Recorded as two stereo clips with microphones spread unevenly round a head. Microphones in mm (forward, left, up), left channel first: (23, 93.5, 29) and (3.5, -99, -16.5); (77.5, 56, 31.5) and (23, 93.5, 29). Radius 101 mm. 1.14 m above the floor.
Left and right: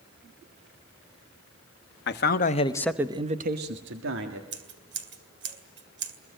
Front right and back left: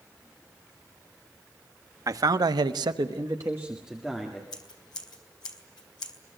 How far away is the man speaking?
About 1.4 m.